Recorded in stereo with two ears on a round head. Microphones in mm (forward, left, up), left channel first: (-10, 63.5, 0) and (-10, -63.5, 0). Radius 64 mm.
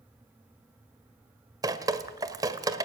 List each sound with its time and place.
1.6 s dripping: 25° right (ahead or behind), 1.4 m